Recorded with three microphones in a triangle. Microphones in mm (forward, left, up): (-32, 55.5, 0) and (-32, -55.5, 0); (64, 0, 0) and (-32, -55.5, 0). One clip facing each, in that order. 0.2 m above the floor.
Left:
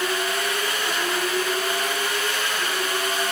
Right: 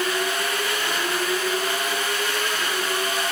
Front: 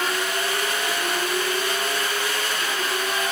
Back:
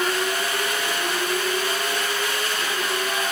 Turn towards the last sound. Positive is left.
No sound to turn to.